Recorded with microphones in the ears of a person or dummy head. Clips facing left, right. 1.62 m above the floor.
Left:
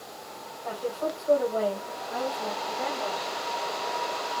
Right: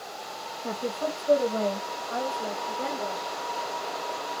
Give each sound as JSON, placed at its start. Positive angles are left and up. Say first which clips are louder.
{"t": 0.6, "sound": "a woman speaking", "louder": "even", "side_deg": -45, "distance_m": 2.5}